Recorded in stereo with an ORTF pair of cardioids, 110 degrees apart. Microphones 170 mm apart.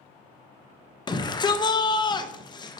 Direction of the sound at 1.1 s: 25° left.